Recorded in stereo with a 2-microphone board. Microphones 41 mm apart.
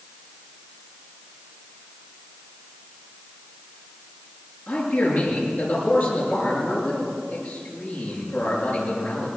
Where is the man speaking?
45° left (ahead or behind), 8.5 m.